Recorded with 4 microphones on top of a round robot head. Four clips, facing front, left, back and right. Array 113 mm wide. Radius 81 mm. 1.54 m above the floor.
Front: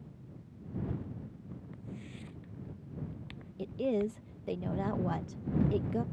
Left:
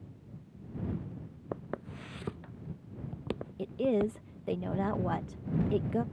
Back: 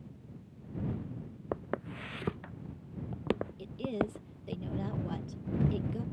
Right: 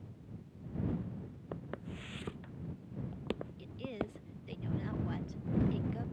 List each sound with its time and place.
1.5 s footsteps: 155° left; by 4.6 s straight behind
3.6 s a woman speaking: 65° left